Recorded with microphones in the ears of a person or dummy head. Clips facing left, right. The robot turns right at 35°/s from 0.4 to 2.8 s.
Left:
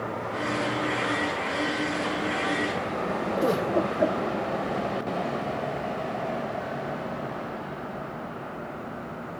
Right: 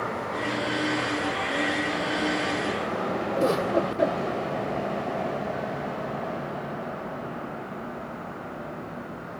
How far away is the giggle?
About 8.5 m.